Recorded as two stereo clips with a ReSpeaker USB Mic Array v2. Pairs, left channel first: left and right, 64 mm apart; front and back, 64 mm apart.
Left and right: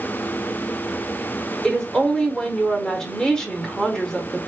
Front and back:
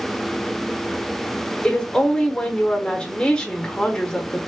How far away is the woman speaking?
About 1.1 m.